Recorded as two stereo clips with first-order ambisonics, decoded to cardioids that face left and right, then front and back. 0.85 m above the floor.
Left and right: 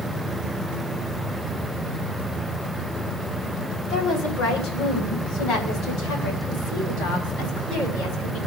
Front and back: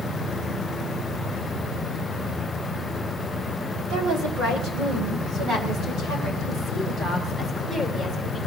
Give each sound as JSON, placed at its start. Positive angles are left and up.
{"t": 3.9, "sound": "a woman speaking", "azimuth_deg": 130, "distance_m": 3.5}